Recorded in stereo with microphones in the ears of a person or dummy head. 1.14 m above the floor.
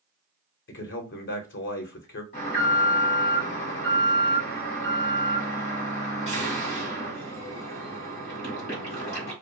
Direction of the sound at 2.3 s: 35° left (ahead or behind).